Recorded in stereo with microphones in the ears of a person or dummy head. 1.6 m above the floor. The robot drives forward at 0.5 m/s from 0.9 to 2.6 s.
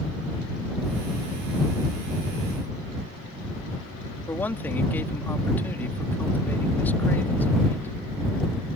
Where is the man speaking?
5° left (ahead or behind).